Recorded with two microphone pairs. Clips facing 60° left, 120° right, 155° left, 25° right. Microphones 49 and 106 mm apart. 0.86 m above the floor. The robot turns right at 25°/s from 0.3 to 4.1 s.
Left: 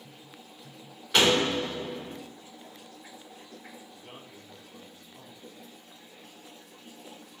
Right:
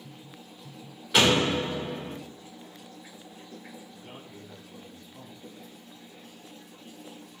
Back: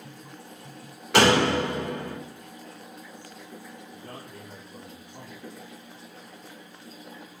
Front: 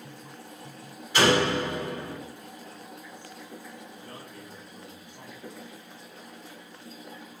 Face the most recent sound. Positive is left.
turn(degrees=155)